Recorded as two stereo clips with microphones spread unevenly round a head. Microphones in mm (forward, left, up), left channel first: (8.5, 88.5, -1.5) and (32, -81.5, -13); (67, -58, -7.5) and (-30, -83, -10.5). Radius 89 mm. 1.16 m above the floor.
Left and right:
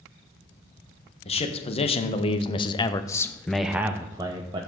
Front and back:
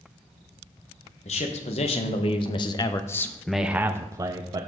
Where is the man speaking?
40° left, 1.3 m; by 4.7 s 135° right, 0.8 m.